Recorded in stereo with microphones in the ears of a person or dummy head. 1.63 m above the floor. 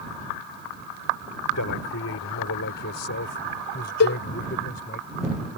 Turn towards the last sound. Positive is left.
turn(degrees=55)  # may be behind; listen again after turning